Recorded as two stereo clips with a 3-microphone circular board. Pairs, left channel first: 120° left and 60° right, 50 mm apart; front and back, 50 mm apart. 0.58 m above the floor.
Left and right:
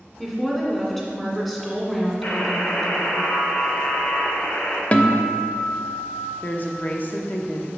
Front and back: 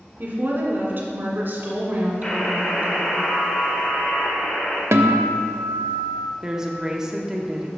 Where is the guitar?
Straight behind, 0.6 m.